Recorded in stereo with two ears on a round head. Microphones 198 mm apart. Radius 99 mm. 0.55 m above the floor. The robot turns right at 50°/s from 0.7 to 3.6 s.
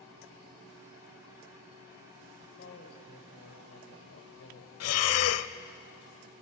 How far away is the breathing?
About 0.6 m.